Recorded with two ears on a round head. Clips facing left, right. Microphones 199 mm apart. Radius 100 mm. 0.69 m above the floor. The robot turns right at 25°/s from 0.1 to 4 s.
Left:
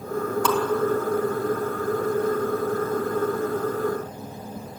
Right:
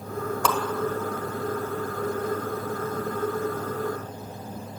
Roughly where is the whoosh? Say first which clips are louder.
Left 3 dB; right.